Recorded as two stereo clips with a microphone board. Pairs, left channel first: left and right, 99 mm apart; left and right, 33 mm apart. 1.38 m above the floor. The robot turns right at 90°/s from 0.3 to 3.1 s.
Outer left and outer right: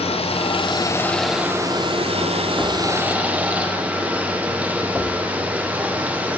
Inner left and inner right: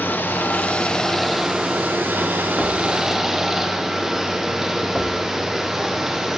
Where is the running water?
95° left, 0.7 m; by 6.4 s 15° right, 0.7 m.